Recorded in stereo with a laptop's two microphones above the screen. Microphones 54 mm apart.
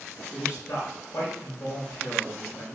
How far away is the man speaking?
About 4 m.